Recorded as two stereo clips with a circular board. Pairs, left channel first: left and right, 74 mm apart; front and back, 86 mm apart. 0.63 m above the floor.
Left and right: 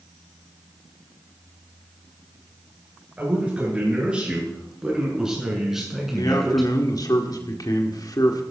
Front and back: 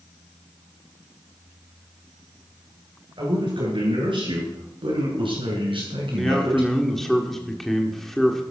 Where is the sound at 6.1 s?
85° left, 1.6 m.